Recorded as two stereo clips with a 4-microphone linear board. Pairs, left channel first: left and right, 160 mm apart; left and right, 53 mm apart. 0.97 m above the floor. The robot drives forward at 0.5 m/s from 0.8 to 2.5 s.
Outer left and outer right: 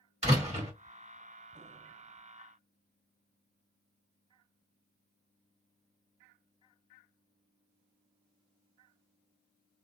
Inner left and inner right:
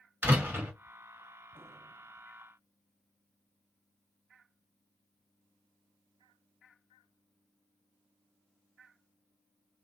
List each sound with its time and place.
0.2 s a door slam: 40° right (ahead or behind), 1.5 m